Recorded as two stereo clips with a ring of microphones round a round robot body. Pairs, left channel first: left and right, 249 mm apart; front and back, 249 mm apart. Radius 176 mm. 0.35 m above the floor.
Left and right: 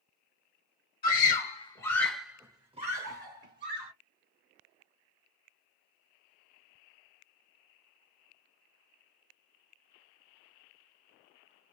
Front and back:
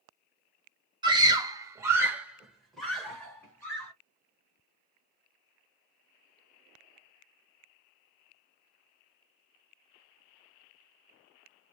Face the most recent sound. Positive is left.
turn(degrees=-75)